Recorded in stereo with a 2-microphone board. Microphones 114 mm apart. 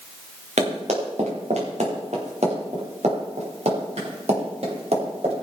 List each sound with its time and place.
0.6 s running footsteps: 85° right, 4.5 m; by 5.3 s 65° right (ahead or behind), 6.5 m